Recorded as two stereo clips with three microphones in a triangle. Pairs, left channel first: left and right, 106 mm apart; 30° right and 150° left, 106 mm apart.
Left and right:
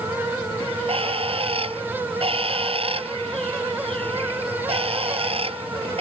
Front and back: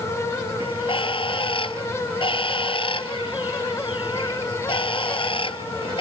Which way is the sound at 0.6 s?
65° right.